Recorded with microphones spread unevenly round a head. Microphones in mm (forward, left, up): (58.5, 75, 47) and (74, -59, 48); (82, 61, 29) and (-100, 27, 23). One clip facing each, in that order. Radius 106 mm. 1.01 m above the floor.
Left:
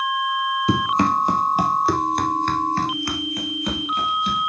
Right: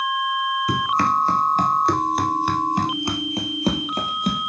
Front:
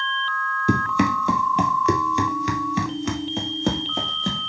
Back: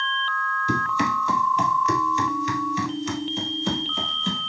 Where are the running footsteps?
35° left, 1.9 m; by 4.5 s 45° right, 2 m.